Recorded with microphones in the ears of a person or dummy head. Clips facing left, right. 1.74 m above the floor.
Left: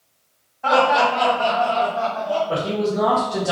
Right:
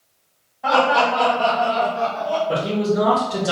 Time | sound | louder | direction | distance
0.6 | laughter | even | centre (ahead or behind) | 1.6 m
2.5 | a man speaking | right 1 dB | 20° right (ahead or behind) | 0.8 m